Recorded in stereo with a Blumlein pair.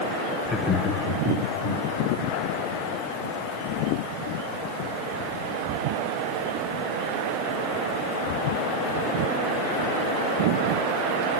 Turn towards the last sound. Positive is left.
turn(degrees=55)